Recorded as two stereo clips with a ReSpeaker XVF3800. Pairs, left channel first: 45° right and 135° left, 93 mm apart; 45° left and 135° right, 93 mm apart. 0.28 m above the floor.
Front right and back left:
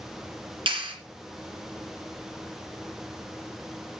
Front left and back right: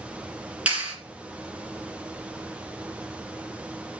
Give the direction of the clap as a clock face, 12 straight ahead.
7 o'clock.